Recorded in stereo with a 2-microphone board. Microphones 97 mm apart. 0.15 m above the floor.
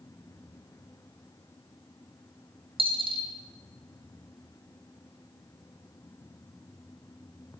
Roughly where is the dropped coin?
Right.